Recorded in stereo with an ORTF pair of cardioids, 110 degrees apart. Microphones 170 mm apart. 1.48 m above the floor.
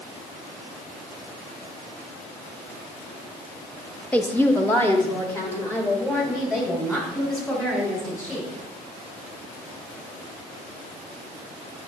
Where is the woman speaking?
10° left, 0.6 m; by 8.5 s 15° left, 5.5 m.